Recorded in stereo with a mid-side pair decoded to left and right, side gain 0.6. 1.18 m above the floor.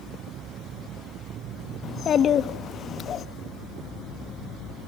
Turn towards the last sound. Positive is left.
turn(degrees=45)